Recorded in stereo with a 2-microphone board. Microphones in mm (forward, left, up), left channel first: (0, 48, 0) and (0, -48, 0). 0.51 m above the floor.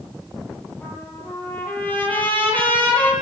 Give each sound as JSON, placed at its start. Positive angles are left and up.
{"t": 0.8, "sound": "a trumpet", "side_deg": 20, "distance_m": 8.0}